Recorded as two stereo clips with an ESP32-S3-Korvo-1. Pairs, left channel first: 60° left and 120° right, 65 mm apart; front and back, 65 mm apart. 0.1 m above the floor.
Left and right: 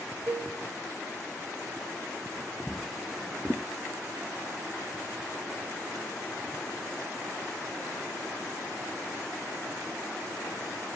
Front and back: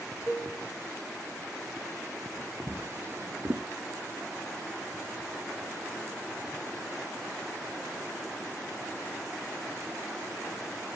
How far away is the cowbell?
About 2 m.